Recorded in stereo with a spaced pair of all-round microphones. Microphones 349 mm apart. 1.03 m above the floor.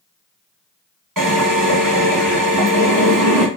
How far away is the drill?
About 1.6 m.